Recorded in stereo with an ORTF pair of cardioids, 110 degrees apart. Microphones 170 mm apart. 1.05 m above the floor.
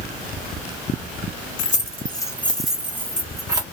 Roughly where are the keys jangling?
Ahead left.